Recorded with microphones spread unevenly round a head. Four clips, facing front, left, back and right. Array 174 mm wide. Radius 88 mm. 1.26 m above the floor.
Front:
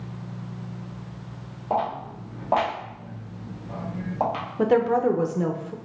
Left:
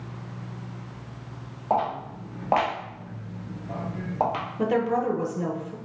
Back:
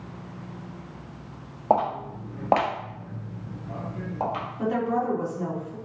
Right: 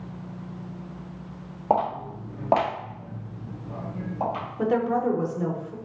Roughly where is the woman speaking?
Ahead.